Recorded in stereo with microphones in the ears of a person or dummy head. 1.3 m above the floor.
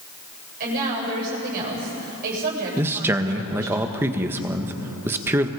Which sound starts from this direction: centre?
A man speaking, at 2.8 s.